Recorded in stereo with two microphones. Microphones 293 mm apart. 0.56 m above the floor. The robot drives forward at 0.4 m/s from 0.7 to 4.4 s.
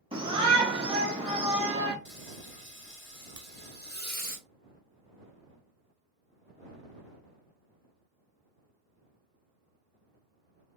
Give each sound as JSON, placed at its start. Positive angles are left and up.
{"t": 0.1, "sound": "a shout", "side_deg": -20, "distance_m": 1.0}
{"t": 2.0, "sound": "frying", "side_deg": 40, "distance_m": 0.8}
{"t": 3.4, "sound": "a crack", "side_deg": -55, "distance_m": 0.8}